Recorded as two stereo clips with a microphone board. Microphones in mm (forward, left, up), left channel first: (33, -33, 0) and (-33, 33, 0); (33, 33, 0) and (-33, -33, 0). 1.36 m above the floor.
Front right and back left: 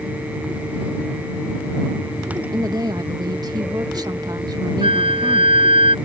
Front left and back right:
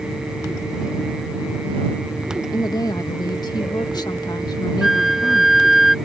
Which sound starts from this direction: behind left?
A flute, at 4.8 s.